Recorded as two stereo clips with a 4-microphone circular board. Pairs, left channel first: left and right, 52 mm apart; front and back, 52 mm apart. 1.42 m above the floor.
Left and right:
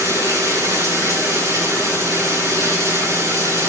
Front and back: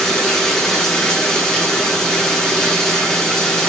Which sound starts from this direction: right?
Running water, at 0.0 s.